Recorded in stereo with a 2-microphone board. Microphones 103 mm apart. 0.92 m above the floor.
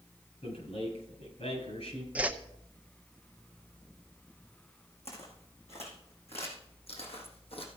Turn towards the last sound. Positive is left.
turn(degrees=65)  # may be behind; listen again after turning